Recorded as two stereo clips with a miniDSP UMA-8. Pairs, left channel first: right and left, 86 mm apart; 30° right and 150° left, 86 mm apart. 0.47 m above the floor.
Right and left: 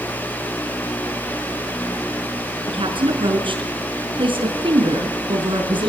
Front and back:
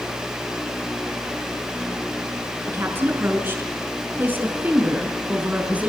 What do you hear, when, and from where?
2.7 s a woman speaking: 85° left, 6.5 m; by 5.9 s 75° left, 5 m